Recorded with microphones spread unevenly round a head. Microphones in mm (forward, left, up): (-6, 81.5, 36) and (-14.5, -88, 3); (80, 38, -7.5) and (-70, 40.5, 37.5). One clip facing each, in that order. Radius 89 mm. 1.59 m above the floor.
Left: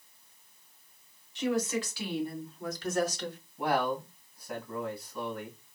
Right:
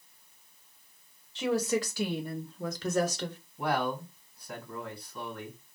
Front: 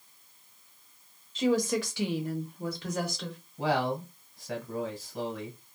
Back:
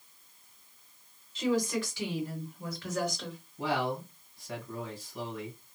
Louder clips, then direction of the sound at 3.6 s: Left 1 dB, front 3 dB; 5° left.